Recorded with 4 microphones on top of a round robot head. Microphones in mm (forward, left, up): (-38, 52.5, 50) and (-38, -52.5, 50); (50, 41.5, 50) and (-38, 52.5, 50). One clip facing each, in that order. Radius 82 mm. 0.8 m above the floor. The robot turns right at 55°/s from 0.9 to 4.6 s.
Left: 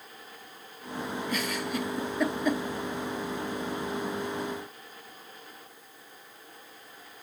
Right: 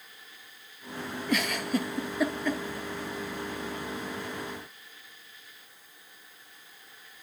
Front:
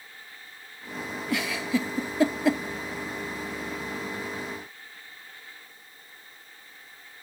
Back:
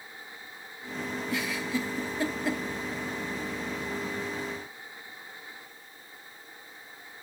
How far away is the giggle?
About 0.7 m.